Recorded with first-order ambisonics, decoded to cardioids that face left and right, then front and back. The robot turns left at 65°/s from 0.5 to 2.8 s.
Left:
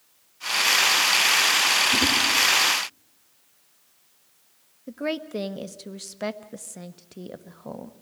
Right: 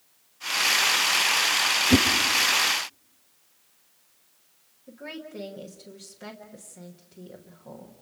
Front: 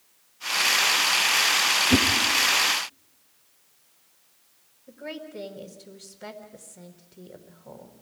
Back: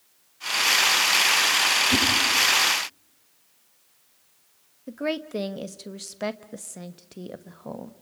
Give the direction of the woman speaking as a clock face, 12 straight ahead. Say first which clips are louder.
Left 10 dB, back 9 dB; 7 o'clock.